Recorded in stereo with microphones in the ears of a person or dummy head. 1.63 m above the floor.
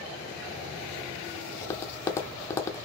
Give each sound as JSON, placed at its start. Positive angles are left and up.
{"t": 1.6, "sound": "tapping", "side_deg": 15, "distance_m": 0.6}